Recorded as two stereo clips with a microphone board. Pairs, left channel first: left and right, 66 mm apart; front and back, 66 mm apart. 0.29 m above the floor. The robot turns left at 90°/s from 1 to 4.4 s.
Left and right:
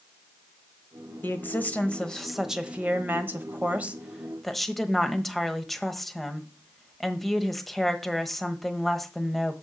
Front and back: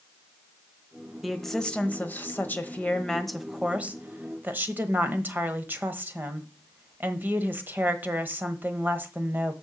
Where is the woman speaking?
100° left, 1.1 m; by 9.5 s 175° left, 1.1 m.